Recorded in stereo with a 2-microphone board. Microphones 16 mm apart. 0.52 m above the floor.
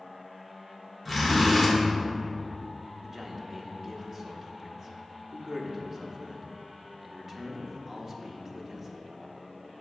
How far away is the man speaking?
About 0.8 m.